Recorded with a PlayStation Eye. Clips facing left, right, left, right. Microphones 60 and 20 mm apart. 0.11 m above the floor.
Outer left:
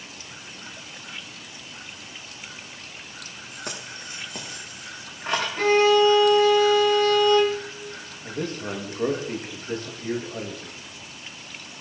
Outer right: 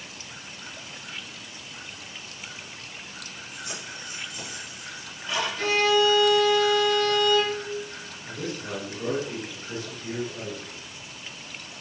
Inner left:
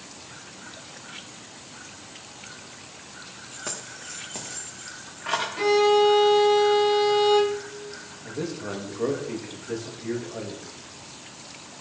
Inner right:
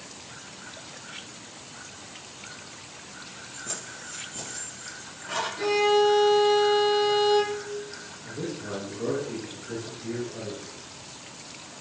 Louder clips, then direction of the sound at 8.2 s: Outer left 4 dB, inner left 3 dB; 45° left (ahead or behind).